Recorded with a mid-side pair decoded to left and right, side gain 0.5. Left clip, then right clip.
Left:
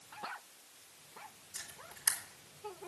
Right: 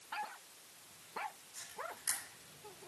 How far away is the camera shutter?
About 4 m.